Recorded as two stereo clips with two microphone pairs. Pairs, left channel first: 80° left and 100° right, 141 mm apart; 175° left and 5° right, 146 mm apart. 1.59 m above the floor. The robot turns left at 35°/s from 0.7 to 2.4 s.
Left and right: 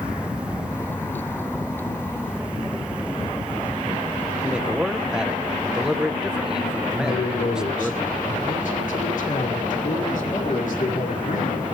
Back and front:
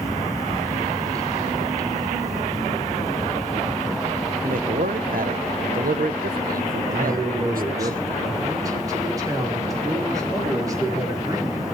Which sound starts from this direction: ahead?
A man speaking, at 4.4 s.